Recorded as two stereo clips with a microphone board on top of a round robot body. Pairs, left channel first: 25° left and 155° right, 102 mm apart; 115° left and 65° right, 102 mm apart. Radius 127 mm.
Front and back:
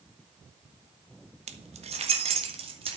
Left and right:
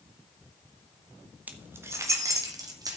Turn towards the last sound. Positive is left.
turn(degrees=-125)